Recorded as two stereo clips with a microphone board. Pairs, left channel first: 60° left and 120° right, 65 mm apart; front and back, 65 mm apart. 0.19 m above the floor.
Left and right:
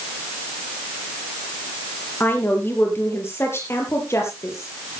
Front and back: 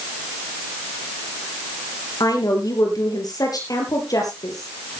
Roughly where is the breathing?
I don't hear breathing.